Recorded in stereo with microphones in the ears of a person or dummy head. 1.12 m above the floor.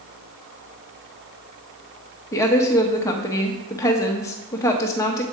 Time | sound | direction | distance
2.3 | a woman speaking | 15° left (ahead or behind) | 1.0 m